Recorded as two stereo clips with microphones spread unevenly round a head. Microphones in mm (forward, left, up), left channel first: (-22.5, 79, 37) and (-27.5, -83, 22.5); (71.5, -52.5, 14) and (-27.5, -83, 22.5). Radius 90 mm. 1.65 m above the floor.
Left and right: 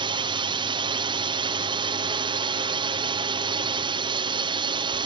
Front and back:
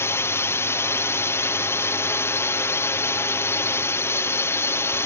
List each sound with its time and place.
0.0 s a drone: 40° right